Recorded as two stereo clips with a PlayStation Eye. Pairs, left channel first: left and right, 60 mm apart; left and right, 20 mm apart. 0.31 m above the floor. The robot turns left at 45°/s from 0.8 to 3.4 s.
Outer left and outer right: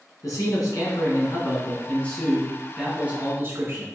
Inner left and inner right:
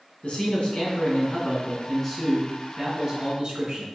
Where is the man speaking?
80° left, 3 m; by 3.9 s 40° right, 3 m.